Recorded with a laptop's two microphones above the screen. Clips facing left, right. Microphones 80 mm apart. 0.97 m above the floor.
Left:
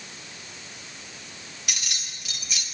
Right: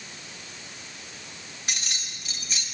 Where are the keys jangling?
35° right (ahead or behind), 1.7 m.